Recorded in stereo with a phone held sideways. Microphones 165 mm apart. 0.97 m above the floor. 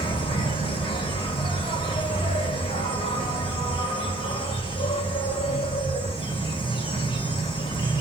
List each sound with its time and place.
0.0 s an insect: 30° left (ahead or behind), 1.6 m